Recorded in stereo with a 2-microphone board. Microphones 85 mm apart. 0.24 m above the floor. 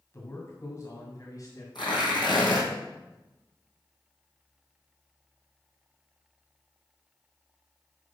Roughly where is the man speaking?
Left.